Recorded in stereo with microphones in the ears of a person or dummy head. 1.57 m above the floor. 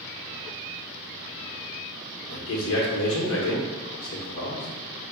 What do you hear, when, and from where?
2.3 s a man speaking: 80° left, 1.0 m